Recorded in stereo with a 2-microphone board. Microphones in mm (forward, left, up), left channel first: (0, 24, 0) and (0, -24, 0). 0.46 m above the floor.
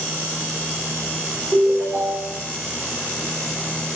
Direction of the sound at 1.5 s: 45° right (ahead or behind).